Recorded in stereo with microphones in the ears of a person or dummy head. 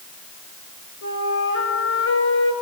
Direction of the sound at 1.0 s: 70° left (ahead or behind).